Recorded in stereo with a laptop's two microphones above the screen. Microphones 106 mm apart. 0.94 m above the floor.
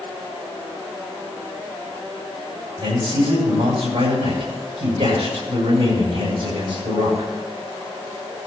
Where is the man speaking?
85° right, 6.5 m.